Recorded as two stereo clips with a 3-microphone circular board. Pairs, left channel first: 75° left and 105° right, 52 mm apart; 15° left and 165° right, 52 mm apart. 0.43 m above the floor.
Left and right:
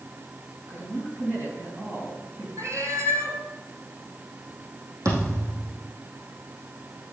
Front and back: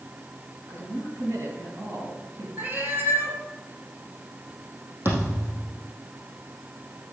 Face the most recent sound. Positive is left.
turn(degrees=-120)